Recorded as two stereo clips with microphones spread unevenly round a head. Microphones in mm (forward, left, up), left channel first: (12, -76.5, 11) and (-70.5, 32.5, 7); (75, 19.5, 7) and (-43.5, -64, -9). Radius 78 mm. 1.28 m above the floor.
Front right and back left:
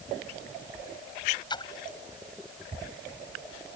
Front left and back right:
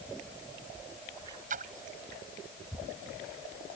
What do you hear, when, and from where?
1.5 s a splash: 110° right